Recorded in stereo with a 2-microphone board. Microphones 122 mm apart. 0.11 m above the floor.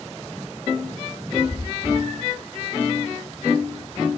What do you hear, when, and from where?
1.3 s a cat meowing: 55° right (ahead or behind), 9 m